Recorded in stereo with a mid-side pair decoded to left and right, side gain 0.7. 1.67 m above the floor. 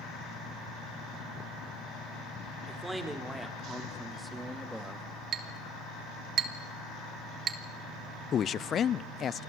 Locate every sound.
2.7 s a man speaking: 10° right, 4.5 m; by 5.0 s straight ahead, 2.0 m
5.3 s a clink: 40° right, 2.5 m
8.3 s a man speaking: 35° left, 0.5 m